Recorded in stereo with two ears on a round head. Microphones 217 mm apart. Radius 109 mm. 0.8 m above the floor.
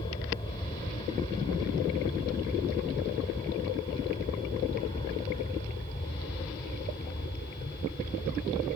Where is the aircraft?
20° left (ahead or behind); by 8.8 s 25° left (ahead or behind).